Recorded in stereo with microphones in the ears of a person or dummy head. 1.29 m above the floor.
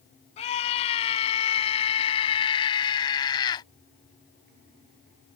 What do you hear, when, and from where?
0.4 s a scream: 30° left (ahead or behind); by 3.7 s 20° left (ahead or behind)